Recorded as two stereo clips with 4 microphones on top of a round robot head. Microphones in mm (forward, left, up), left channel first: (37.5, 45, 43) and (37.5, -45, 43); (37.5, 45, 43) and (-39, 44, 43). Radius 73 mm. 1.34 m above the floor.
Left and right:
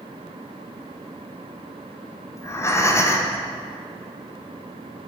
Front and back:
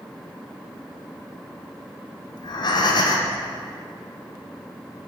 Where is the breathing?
30° left, 0.8 m.